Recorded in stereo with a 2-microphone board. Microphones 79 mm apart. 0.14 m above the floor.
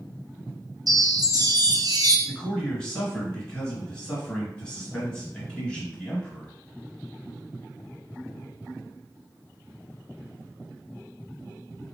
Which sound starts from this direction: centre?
A man speaking, at 2.3 s.